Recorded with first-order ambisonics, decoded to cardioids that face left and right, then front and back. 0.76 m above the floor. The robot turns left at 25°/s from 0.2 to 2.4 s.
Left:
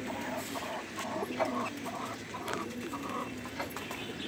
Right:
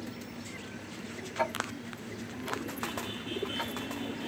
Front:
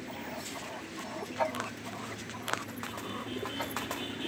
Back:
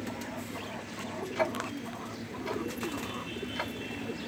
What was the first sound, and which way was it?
Ticking, 135° right.